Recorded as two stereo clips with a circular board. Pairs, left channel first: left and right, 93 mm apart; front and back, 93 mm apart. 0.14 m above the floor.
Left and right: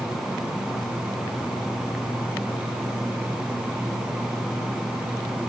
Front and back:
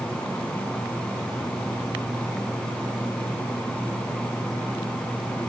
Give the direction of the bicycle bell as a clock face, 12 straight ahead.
I don't hear a bicycle bell.